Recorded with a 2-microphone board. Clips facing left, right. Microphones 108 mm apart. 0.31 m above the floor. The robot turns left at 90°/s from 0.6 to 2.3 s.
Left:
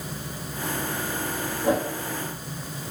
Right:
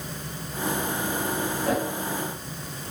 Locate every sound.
1.6 s a whoosh: 20° left (ahead or behind), 6.5 m; by 1.9 s centre (ahead or behind), 6.5 m